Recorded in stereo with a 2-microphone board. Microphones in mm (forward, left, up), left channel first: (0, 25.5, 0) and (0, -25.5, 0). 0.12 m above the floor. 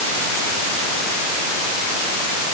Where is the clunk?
No clunk in this recording.